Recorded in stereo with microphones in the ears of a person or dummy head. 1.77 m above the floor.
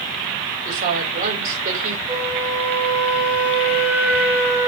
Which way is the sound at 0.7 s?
45° right (ahead or behind).